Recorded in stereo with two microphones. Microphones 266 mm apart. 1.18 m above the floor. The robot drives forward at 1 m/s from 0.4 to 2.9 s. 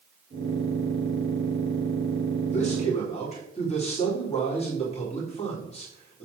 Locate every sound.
2.5 s a man speaking: 25° left (ahead or behind), 3.5 m